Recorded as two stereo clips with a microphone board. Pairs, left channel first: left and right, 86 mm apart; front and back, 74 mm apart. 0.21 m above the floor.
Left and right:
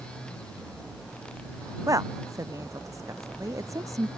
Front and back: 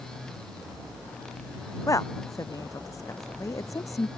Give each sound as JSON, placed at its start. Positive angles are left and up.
{"t": 1.9, "sound": "a woman speaking", "azimuth_deg": -40}